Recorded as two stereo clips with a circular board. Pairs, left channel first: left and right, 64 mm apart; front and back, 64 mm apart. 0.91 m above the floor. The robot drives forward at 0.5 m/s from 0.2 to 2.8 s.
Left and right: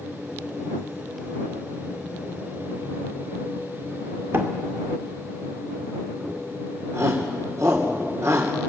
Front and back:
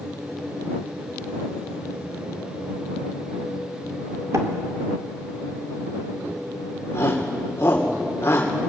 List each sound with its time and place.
4.3 s a door slam: 140° right, 2.5 m
6.9 s a shout: 50° right, 2.5 m